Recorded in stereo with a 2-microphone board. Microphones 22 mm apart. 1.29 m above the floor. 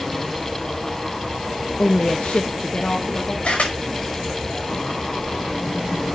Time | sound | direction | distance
1.8 | a woman speaking | 60° left (ahead or behind) | 0.7 m
3.4 | a camera shutter | 75° left (ahead or behind) | 5 m